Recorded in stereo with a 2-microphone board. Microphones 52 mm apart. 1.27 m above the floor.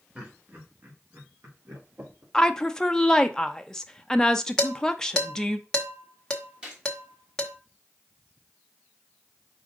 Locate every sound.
0.1 s laughter: 25° right (ahead or behind), 2.5 m; by 2.2 s 70° right (ahead or behind), 4.5 m
2.3 s a woman speaking: 10° left (ahead or behind), 0.7 m
4.6 s dishes clattering: 15° left (ahead or behind), 1.0 m
6.6 s a gunshot: 20° right (ahead or behind), 2 m